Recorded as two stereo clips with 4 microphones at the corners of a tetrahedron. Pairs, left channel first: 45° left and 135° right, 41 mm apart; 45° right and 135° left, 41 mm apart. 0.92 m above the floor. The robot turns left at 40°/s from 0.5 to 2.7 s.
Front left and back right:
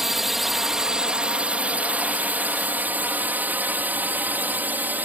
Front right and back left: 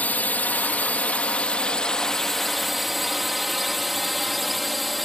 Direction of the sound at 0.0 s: 55° right.